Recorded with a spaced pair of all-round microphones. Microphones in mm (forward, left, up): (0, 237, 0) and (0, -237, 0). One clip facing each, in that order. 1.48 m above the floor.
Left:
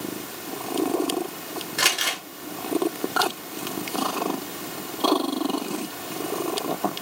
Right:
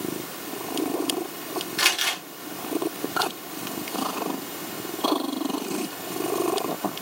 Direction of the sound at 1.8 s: 65° left (ahead or behind).